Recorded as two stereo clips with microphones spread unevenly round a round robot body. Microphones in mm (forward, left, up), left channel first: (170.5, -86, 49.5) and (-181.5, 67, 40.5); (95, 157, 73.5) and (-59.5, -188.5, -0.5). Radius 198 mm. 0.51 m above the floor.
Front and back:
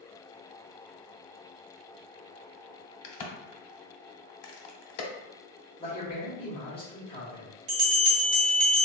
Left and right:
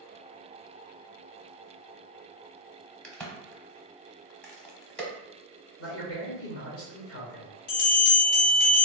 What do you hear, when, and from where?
3.0 s a crack: 25° right, 0.9 m
5.8 s a man speaking: 40° left, 1.3 m
7.7 s a bell: 120° left, 1.1 m